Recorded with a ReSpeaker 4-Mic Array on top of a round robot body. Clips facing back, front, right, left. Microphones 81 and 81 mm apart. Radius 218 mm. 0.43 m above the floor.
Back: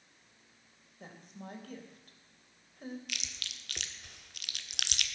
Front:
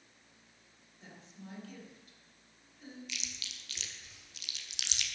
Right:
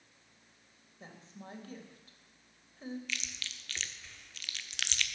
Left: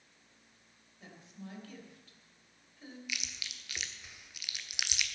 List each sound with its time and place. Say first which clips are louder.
1.0 s a woman speaking: back 4 dB, even; 145° right, 3 m
3.1 s chewing: back 2 dB, right 1 dB; 165° left, 1.3 m